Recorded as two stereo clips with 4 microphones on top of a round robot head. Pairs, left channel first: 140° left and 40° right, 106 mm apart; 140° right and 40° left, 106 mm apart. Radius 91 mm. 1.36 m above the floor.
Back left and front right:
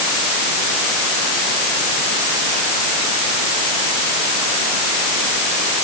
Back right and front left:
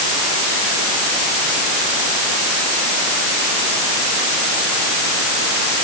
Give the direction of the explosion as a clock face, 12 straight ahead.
No explosion in this recording.